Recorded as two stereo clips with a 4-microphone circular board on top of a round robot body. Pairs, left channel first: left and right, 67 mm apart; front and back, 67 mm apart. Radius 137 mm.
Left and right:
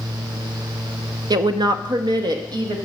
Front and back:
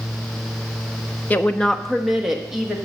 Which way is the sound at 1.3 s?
65° right.